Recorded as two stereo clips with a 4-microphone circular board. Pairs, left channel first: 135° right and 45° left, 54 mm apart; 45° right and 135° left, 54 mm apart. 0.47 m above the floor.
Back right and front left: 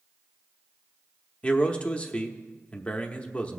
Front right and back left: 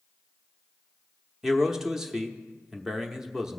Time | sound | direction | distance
1.4 | a man speaking | 160° right | 0.8 m